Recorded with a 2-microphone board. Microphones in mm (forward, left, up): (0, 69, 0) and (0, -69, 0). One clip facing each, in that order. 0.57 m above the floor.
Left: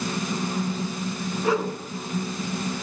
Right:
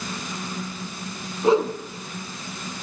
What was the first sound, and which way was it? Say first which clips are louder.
A whoosh: right 6 dB; 25° right (ahead or behind).